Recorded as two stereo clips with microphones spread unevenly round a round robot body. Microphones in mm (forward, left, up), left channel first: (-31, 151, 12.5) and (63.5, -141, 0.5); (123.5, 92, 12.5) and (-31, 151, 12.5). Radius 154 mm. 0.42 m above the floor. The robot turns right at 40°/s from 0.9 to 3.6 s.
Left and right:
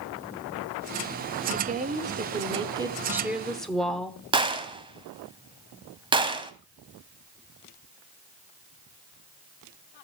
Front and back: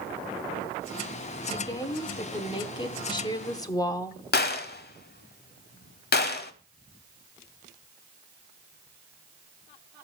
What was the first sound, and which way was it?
A woman speaking, 70° right.